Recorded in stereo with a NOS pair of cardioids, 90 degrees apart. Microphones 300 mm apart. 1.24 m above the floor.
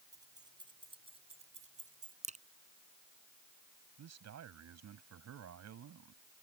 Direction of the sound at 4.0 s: 60° right.